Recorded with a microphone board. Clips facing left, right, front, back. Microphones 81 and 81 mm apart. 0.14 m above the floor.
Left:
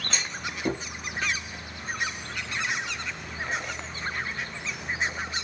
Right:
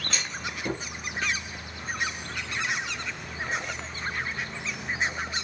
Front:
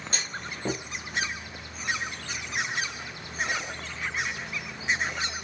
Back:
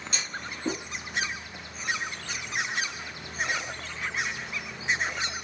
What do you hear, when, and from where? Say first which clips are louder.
0.1 s a clunk: left 1 dB, front 1 dB; 35° left, 1.2 m